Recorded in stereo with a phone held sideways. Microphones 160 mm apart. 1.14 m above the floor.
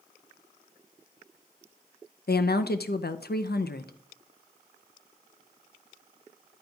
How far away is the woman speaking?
About 0.5 m.